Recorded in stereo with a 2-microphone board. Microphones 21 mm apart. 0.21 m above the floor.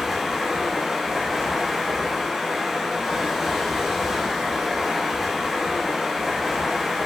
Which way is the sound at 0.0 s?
20° right (ahead or behind).